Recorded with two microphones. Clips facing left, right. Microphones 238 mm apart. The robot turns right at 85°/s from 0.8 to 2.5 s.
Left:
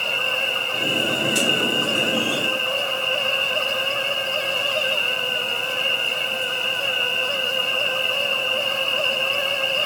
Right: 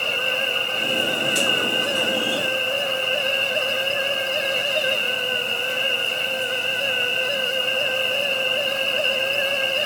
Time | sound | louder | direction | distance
0.0 | an insect | right 2 dB | 35° right | 6.5 m